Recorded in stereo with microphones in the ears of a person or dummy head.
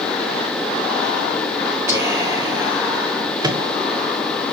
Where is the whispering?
15° right (ahead or behind), 1.0 m.